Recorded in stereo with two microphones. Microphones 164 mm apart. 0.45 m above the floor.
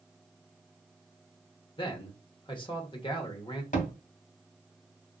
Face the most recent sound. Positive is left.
turn(degrees=55)  # may be behind; listen again after turning